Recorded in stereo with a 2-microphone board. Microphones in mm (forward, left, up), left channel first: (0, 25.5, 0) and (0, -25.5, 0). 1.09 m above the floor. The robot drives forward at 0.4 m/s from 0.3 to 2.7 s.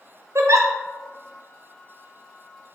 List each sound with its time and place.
0.3 s a giggle: 65° right (ahead or behind), 0.5 m; by 0.7 s 75° right (ahead or behind), 0.5 m